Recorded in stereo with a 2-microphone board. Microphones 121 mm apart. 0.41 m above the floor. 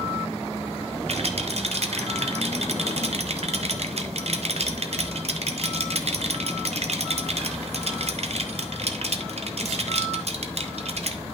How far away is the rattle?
About 0.8 m.